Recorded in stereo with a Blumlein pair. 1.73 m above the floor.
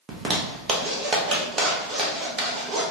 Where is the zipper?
20° right, 0.9 m.